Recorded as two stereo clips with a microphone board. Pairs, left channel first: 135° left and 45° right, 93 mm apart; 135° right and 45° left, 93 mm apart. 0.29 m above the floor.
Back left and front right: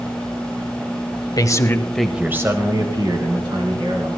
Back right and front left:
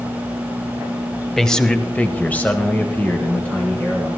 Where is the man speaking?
140° left, 1.4 m; by 4.1 s 60° right, 3.5 m.